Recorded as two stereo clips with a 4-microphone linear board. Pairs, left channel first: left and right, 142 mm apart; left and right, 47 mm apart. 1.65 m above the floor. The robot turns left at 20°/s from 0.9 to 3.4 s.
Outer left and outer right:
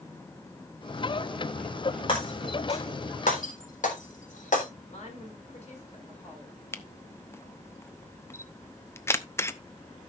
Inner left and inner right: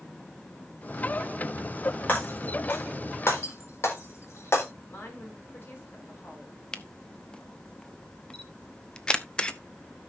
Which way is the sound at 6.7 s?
20° left (ahead or behind).